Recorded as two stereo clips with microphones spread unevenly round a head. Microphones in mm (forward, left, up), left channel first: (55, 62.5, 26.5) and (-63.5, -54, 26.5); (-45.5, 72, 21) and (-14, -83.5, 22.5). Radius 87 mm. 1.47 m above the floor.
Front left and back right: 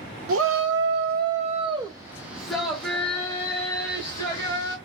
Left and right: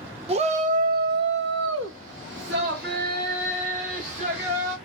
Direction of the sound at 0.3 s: 130° right.